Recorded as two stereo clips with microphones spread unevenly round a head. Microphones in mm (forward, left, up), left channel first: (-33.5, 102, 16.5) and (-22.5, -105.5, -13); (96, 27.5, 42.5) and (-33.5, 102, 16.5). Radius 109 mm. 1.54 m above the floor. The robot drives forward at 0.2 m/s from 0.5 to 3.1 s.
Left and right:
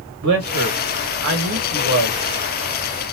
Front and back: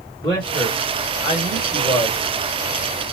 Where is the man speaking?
100° right, 1.5 m; by 2.2 s 110° right, 1.6 m.